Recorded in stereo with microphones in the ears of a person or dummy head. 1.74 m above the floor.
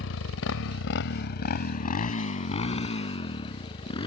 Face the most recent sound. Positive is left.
turn(degrees=25)  # may be behind; listen again after turning